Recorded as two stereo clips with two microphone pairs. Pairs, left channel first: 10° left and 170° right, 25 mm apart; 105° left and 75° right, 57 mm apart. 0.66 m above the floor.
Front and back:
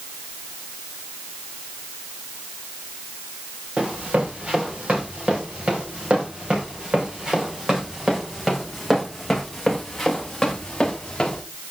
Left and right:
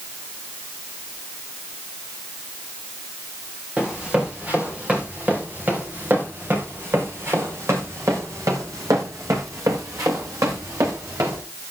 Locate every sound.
3.8 s running footsteps: 150° right, 4.5 m; by 11.4 s 60° right, 3.5 m